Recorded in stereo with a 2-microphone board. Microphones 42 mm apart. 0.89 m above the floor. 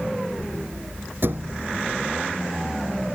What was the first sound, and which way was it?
A thud, 55° right (ahead or behind).